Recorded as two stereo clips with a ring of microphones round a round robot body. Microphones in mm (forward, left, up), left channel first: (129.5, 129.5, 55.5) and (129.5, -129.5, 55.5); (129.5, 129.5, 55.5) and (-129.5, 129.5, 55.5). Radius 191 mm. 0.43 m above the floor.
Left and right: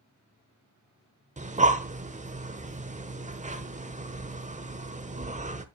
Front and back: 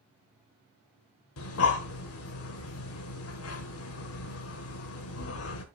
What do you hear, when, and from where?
1.4 s breathing: 30° right, 1.3 m